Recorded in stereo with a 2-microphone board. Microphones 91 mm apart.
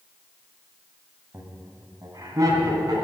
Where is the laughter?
35° right (ahead or behind), 2.5 m; by 3.0 s 45° right (ahead or behind), 3.5 m.